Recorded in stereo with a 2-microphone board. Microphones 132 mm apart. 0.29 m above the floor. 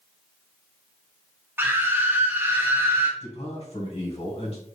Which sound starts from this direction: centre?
A scream, at 1.6 s.